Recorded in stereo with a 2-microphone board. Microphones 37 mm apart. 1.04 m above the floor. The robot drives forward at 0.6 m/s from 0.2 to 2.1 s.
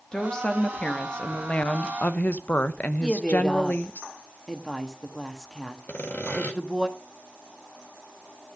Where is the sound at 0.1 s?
20° left (ahead or behind), 1.8 m; by 4.0 s 45° left (ahead or behind), 0.9 m.